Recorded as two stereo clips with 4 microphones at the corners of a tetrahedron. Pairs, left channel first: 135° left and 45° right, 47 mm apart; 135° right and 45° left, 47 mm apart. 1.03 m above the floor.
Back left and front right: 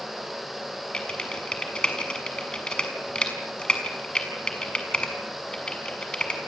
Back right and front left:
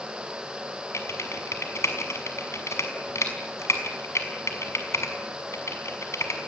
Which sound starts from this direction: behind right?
Typing on a keyboard, at 0.9 s.